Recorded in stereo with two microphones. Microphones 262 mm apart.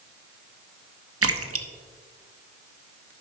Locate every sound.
1.2 s a splash: 65° right (ahead or behind), 0.8 m